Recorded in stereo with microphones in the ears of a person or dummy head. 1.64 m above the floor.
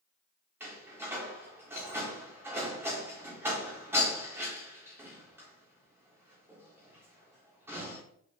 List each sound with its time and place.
0.6 s a door slam: 15° right (ahead or behind), 1.4 m